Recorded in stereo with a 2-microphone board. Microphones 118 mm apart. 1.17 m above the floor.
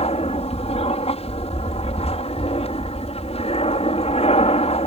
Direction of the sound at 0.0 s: 60° left (ahead or behind).